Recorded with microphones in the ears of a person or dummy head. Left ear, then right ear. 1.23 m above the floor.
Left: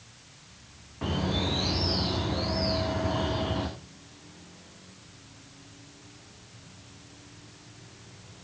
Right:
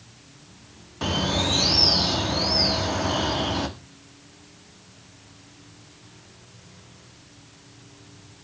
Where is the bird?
80° right, 1.8 m.